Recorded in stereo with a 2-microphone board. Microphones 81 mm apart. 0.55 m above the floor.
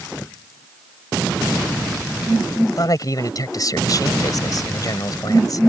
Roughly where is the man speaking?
Left.